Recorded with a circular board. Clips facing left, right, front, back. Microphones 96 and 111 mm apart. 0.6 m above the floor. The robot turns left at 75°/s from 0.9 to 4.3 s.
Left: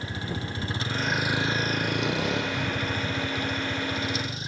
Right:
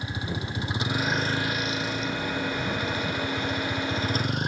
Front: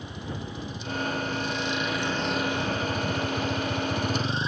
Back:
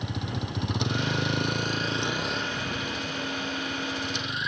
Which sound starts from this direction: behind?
A vehicle, at 0.0 s.